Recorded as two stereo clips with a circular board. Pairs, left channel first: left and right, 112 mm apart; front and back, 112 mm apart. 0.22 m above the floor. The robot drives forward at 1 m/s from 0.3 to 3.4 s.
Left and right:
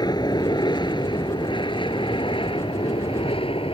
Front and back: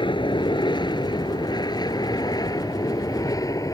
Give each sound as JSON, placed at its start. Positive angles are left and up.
{"t": 0.0, "sound": "an aircraft", "azimuth_deg": 40}